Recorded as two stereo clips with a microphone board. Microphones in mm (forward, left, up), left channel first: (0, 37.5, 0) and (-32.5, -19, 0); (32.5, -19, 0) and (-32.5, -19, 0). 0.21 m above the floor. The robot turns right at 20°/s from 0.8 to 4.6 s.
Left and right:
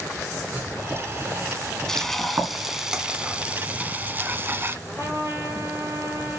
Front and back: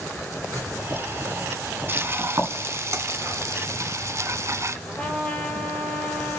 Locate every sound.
0.5 s writing: straight behind, 2.5 m; by 2.7 s 140° right, 2.5 m
1.9 s frying: 140° left, 1.0 m; by 4.8 s 165° right, 1.0 m
4.9 s a trumpet: 75° right, 4 m